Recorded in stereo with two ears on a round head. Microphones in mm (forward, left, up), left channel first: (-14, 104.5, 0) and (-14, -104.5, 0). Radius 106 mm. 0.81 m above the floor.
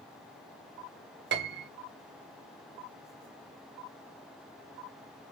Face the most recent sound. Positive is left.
turn(degrees=-50)  # may be behind; listen again after turning